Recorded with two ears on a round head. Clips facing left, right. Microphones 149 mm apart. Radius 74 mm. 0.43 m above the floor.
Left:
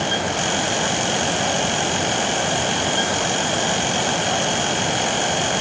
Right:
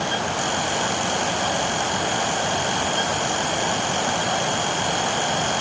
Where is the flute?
No flute in this recording.